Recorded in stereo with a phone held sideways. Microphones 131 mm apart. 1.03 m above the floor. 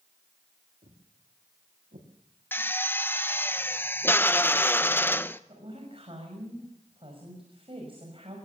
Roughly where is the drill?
Centre.